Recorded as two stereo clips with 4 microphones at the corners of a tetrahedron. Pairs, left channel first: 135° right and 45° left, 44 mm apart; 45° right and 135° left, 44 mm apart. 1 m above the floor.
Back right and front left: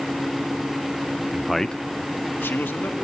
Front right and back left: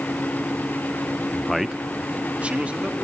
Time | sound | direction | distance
1.3 | a man speaking | 20° left | 0.5 m